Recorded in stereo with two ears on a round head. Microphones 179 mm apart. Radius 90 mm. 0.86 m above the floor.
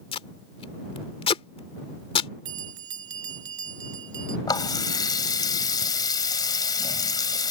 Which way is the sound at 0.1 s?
25° left (ahead or behind).